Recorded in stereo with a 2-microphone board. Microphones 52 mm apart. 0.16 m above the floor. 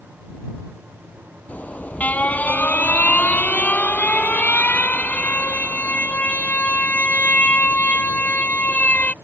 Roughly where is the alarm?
Left.